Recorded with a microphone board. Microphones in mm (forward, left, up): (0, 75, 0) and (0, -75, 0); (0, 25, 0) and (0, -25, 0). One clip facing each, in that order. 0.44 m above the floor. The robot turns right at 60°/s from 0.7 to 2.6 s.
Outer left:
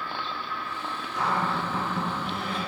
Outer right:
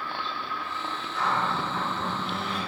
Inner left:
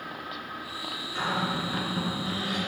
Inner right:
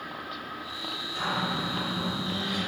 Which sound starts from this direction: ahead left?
A cupboard door, at 1.1 s.